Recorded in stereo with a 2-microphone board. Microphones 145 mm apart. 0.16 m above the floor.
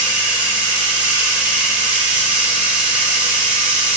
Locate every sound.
0.0 s running water: 10° right (ahead or behind), 1.0 m